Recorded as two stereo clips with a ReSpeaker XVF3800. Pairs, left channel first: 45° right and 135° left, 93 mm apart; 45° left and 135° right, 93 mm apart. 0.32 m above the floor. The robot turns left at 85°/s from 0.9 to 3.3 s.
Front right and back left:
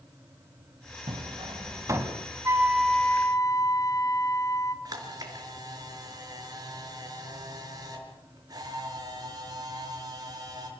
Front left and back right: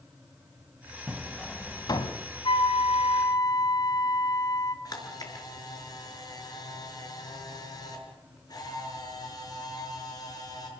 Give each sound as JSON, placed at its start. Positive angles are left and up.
{"t": 1.1, "sound": "hammering", "azimuth_deg": 155, "distance_m": 2.0}
{"t": 2.5, "sound": "a flute", "azimuth_deg": 75, "distance_m": 1.8}
{"t": 4.8, "sound": "a camera shutter", "azimuth_deg": 90, "distance_m": 5.5}